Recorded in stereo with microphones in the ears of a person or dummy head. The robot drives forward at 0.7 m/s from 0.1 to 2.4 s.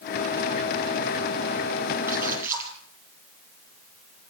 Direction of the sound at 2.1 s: 15° right (ahead or behind).